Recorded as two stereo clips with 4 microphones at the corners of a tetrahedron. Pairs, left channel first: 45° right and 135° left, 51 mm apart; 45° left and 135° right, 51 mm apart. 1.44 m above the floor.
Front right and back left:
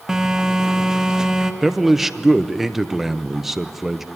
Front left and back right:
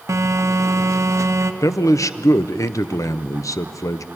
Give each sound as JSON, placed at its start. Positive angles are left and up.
{"t": 0.1, "sound": "a phone buzzing", "azimuth_deg": -145, "distance_m": 1.1}
{"t": 1.6, "sound": "a man speaking", "azimuth_deg": 50, "distance_m": 0.7}